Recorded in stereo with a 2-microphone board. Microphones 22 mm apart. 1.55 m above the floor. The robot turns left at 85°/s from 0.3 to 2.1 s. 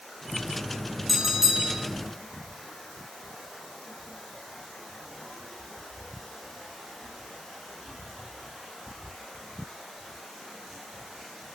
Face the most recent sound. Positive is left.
turn(degrees=-90)